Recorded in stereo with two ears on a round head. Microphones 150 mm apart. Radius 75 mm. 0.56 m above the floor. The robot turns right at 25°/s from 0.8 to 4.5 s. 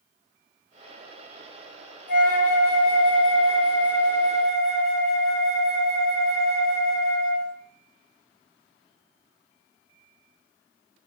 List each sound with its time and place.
2.1 s a flute: 120° left, 1.1 m; by 7.5 s straight behind, 1.1 m